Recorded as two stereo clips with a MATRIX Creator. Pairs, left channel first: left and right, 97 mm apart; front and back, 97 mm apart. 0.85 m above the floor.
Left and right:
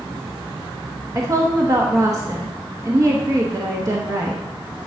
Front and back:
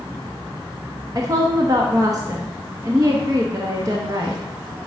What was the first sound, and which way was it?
A woman speaking, 135° right.